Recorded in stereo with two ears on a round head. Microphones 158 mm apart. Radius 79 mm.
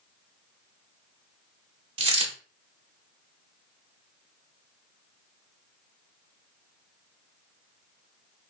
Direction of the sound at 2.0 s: 30° right (ahead or behind).